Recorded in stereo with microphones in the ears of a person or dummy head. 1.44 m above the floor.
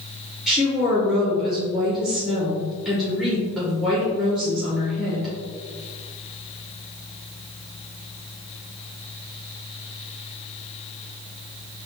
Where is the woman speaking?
Centre (ahead or behind), 1.3 m.